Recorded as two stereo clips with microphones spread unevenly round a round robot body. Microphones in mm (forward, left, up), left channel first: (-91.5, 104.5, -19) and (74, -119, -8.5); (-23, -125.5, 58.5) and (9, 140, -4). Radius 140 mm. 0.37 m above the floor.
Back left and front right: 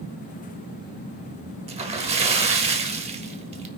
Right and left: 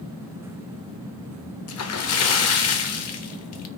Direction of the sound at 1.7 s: 115° right.